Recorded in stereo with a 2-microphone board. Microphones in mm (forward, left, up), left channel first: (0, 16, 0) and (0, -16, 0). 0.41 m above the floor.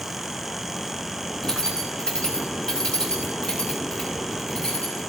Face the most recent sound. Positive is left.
turn(degrees=25)  # may be behind; listen again after turning